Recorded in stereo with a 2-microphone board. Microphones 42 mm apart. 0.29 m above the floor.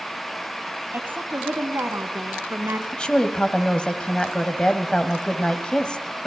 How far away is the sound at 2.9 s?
About 1.6 m.